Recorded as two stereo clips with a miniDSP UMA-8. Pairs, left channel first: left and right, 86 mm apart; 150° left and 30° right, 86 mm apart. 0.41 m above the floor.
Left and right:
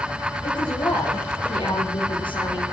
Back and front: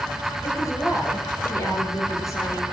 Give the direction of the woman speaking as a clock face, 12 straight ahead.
9 o'clock.